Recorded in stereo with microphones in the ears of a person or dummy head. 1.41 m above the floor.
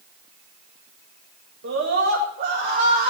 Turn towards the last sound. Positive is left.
turn(degrees=-30)  # may be behind; listen again after turning